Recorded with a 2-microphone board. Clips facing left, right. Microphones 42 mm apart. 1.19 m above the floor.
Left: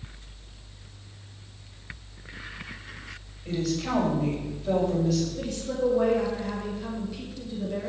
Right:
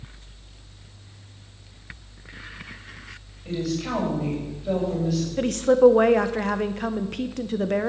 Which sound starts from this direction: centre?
A woman speaking, at 3.5 s.